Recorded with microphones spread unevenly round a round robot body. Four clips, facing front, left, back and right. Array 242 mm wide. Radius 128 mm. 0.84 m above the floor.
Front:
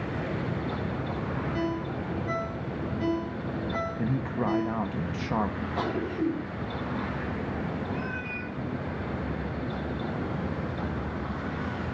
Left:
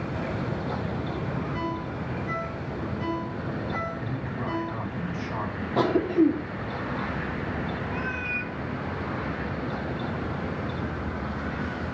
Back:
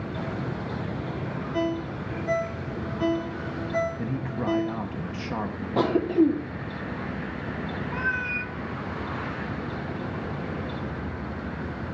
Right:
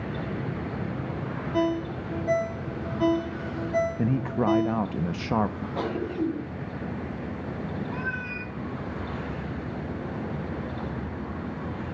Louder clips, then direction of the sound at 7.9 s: Left 1 dB, back 4 dB; 170° left.